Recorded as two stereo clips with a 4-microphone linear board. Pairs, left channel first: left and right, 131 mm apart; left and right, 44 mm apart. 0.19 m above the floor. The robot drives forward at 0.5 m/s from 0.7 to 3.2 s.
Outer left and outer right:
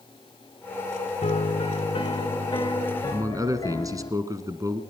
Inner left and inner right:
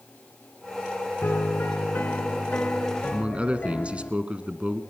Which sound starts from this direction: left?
A piano, at 1.2 s.